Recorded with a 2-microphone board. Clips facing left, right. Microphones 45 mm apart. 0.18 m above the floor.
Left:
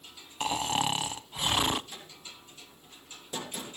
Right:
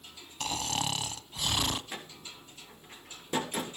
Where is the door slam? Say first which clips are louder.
Right 3 dB; 60° right (ahead or behind), 3.5 m.